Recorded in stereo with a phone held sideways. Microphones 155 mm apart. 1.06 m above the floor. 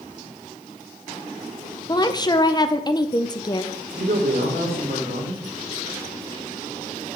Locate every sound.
1.9 s a woman speaking: 25° left (ahead or behind), 0.6 m
3.9 s a man speaking: 80° right, 2.5 m